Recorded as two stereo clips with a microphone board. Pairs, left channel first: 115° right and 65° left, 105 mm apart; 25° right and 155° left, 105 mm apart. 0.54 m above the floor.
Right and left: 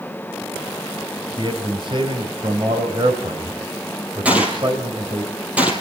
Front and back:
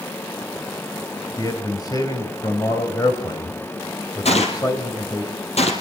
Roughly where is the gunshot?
Ahead.